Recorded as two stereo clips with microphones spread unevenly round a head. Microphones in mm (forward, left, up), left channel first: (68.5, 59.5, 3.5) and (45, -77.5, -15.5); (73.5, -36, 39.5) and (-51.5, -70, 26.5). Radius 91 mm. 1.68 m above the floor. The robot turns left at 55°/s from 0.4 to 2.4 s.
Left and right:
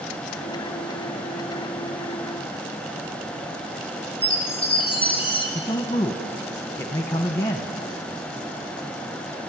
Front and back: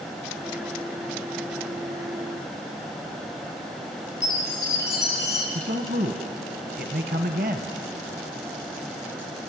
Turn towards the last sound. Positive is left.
turn(degrees=150)